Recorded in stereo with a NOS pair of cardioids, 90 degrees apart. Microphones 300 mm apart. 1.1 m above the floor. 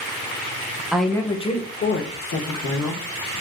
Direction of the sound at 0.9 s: 5° right.